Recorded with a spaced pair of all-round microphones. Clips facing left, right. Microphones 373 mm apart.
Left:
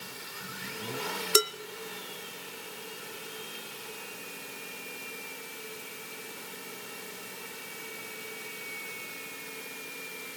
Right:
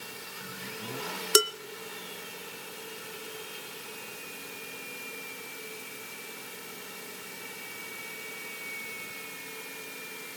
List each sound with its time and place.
1.4 s dishes clattering: 25° right (ahead or behind), 0.6 m